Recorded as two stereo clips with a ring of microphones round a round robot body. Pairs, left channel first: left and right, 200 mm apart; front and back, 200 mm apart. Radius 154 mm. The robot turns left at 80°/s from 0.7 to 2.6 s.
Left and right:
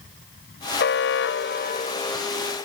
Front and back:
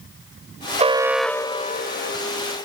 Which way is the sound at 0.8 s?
125° left.